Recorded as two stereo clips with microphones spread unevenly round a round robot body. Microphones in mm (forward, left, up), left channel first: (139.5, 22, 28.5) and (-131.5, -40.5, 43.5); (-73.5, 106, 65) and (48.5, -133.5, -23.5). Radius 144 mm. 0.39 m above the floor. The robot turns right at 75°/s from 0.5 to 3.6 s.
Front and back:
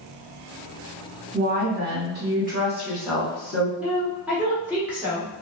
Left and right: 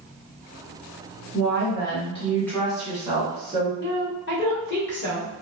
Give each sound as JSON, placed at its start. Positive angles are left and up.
{"t": 1.3, "sound": "a woman speaking", "azimuth_deg": 140, "distance_m": 1.5}
{"t": 3.8, "sound": "a woman speaking", "azimuth_deg": 105, "distance_m": 1.1}